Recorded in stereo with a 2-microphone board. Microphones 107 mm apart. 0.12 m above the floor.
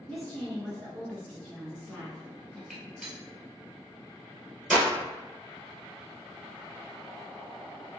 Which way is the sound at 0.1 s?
10° left (ahead or behind).